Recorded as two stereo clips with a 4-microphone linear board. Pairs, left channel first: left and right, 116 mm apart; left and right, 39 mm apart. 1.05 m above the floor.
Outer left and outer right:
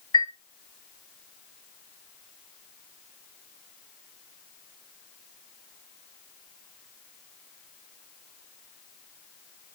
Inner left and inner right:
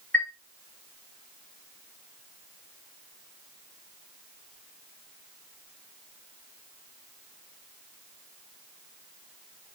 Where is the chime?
40° left (ahead or behind), 1.4 m.